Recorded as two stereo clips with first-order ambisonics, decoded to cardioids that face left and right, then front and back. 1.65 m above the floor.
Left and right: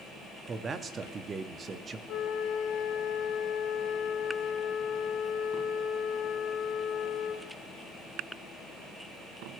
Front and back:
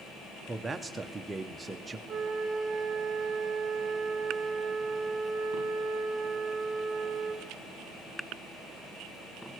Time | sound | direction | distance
0.5 | a man speaking | 115° right | 0.6 m
2.1 | a flute | 110° left | 1.1 m